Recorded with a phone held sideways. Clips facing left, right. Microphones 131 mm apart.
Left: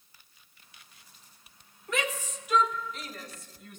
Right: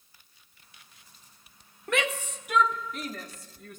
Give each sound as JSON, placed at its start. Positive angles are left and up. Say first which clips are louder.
{"t": 1.9, "sound": "a shout", "louder": "right 3 dB", "side_deg": -70, "distance_m": 1.3}